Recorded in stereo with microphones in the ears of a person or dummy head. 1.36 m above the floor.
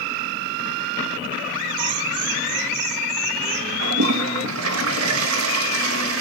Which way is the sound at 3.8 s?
85° right.